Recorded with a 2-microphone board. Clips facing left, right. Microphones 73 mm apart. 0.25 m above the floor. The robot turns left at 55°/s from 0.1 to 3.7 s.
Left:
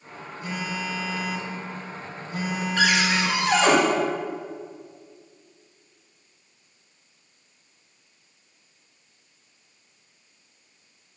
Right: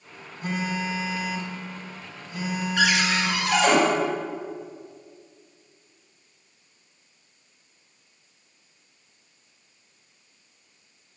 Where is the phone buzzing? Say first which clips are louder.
Right 3 dB; 125° right, 2 m; by 3.4 s 70° left, 2 m.